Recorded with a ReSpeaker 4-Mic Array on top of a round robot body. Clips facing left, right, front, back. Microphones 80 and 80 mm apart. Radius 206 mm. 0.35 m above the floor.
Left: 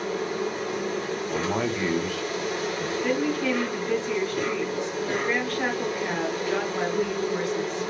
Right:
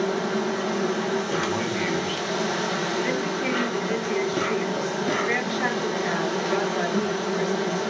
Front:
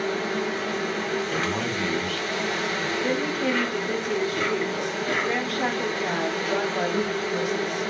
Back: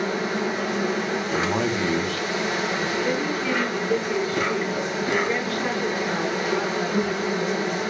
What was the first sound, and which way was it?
An insect, 105° right.